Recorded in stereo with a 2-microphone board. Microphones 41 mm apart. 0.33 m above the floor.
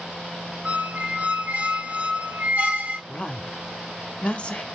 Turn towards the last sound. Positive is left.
turn(degrees=30)  # may be behind; listen again after turning